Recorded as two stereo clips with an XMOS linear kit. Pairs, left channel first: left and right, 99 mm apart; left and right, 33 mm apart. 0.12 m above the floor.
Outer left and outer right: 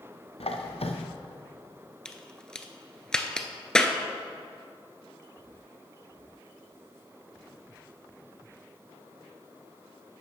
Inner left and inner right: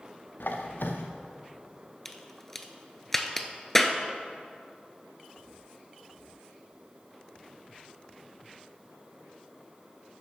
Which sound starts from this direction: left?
A squeak, at 0.4 s.